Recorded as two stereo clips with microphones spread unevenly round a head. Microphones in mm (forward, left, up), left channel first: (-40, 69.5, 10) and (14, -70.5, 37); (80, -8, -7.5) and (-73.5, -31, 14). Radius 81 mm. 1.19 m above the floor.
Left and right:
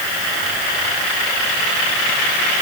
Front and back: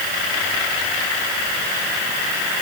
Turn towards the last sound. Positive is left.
No sound to turn to.